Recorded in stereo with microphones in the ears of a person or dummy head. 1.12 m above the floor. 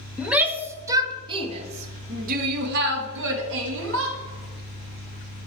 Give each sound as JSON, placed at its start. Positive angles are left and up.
{"t": 0.2, "sound": "a shout", "side_deg": -5, "distance_m": 1.5}